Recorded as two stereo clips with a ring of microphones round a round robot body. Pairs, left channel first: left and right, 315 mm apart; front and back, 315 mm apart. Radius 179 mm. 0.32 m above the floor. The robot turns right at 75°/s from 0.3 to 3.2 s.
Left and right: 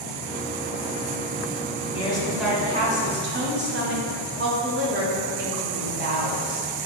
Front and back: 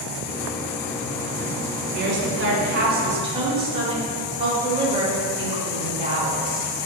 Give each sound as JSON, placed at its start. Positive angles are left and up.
{"t": 1.9, "sound": "a woman speaking", "azimuth_deg": 145, "distance_m": 1.4}